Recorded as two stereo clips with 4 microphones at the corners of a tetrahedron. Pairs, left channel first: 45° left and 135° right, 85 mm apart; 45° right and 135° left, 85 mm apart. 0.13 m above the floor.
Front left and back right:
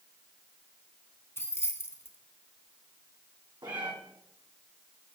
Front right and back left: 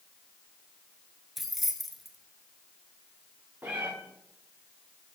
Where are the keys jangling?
45° left, 0.8 m.